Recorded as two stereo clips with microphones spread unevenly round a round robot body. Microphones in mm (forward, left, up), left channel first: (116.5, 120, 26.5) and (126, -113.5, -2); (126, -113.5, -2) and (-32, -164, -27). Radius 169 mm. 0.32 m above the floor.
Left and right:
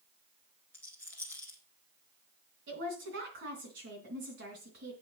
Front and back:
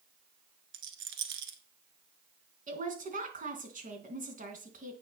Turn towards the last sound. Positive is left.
turn(degrees=-135)